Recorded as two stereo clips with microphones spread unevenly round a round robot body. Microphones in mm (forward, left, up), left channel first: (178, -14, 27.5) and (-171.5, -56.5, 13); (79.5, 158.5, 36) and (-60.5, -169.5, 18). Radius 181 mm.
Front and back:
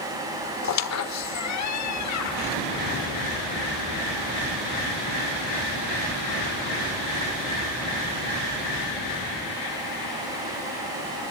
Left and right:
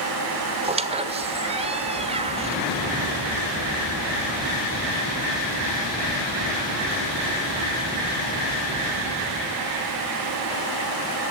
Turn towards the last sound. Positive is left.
turn(degrees=-40)